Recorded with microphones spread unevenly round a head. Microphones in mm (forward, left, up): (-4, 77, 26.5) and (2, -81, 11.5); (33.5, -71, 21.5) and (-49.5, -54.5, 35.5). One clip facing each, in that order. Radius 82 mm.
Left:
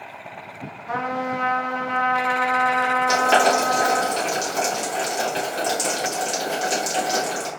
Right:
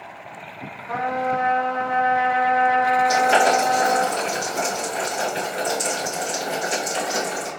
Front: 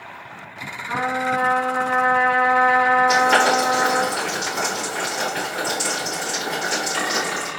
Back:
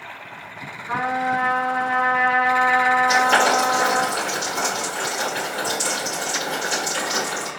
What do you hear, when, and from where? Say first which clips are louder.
0.9 s a trumpet: right 3 dB, even; 80° left, 0.9 m
3.1 s boiling: left 3 dB, front 1 dB; 75° left, 2.5 m